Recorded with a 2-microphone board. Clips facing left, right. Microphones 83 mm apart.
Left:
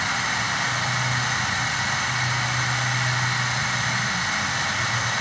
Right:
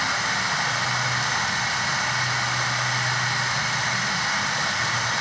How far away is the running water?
About 1.4 m.